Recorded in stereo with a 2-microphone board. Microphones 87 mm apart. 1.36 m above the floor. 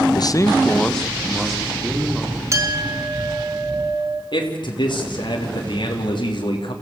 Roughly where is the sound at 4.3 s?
Left.